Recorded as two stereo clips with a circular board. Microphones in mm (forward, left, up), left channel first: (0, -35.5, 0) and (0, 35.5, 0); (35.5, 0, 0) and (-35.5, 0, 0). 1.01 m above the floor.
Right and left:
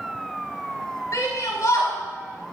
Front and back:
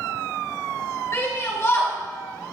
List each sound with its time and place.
1.1 s a shout: 50° right, 6 m